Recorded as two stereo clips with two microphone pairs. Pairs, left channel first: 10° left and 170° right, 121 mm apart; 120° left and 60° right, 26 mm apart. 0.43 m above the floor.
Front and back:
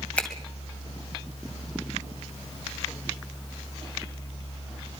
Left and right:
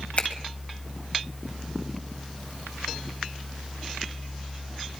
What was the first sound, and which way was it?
A finger snap, 90° left.